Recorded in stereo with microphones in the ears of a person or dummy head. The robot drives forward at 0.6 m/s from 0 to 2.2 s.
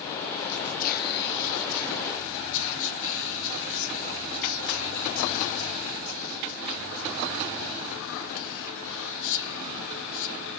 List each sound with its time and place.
0.5 s whispering: 35° left (ahead or behind), 1.0 m; by 10.6 s 70° left (ahead or behind), 0.6 m